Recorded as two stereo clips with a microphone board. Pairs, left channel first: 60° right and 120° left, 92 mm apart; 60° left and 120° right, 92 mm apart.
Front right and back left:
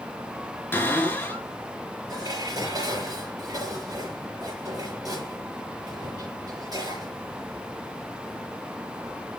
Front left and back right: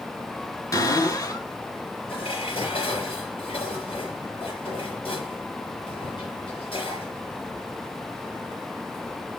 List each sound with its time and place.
0.7 s a cupboard door: 10° left, 4.5 m
2.1 s dishes clattering: 75° left, 5.5 m